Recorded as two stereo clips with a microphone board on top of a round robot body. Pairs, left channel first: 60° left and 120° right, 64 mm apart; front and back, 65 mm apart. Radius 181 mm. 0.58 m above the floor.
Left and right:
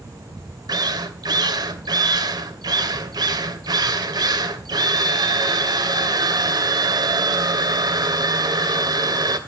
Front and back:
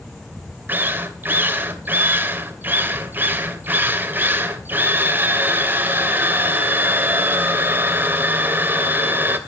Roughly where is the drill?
Behind right.